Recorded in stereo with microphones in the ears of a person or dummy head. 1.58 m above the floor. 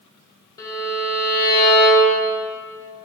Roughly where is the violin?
Left.